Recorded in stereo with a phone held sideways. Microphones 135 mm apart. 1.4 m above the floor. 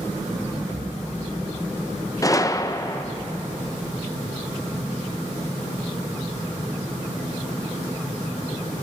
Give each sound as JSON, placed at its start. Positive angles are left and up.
{"t": 2.2, "sound": "a gunshot", "side_deg": 25, "distance_m": 0.5}